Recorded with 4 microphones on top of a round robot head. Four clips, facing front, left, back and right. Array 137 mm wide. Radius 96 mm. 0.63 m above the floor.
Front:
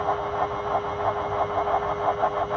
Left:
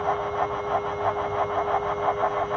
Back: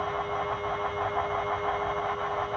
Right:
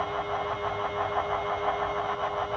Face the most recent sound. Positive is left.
No sound to turn to.